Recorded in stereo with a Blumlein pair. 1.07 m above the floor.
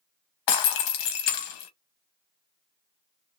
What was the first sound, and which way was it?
Breaking glass, 45° left.